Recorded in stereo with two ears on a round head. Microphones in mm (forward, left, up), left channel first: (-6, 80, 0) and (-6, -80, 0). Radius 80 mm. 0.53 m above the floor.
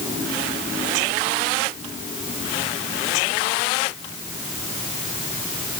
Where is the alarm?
I don't hear an alarm.